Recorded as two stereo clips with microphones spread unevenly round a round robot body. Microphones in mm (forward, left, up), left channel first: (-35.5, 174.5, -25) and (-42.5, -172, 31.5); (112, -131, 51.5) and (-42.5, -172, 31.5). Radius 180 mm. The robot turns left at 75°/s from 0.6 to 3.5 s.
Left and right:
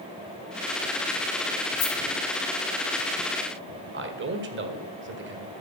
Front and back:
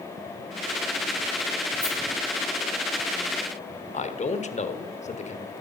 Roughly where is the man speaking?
Ahead right.